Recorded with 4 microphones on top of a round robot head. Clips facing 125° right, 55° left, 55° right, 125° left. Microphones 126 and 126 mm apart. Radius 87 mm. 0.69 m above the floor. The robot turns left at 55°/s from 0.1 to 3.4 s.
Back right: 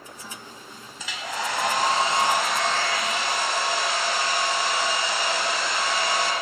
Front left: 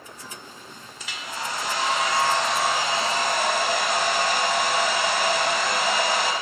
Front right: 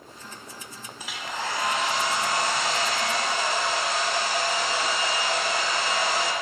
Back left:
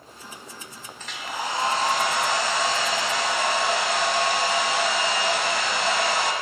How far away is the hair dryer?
About 1.0 m.